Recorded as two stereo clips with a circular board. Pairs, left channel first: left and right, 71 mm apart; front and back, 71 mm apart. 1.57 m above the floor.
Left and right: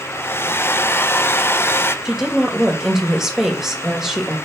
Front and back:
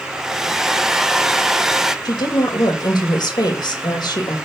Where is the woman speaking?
5° right, 2.5 m.